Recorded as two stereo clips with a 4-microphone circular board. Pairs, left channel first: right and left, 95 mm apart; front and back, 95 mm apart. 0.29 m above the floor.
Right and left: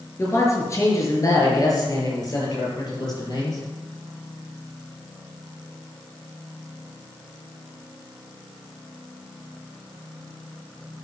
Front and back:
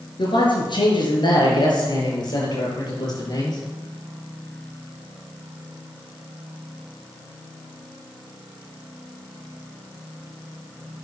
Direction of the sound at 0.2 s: 30° right.